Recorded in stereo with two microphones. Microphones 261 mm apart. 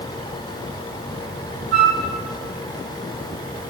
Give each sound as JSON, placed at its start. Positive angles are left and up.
{"t": 1.7, "sound": "a flute", "side_deg": -55, "distance_m": 1.5}